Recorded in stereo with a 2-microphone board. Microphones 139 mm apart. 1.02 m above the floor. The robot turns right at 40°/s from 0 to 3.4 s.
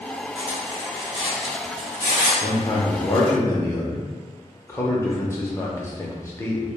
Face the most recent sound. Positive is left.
turn(degrees=150)